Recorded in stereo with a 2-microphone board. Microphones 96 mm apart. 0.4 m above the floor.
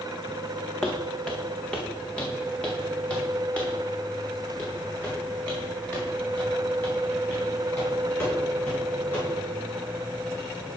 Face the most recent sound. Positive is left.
turn(degrees=15)  # may be behind; listen again after turning